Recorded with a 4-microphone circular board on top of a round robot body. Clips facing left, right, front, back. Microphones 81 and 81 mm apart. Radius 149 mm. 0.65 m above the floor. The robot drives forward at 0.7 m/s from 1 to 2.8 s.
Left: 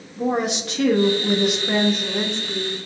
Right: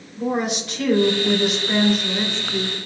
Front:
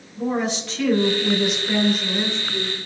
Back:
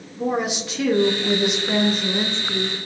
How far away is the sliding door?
No sliding door in this recording.